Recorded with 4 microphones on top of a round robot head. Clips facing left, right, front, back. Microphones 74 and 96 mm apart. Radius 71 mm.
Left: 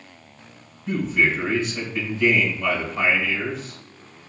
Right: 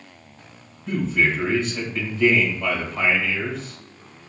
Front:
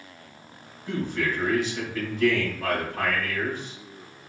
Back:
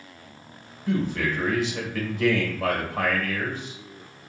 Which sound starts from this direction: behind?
A man speaking, at 0.9 s.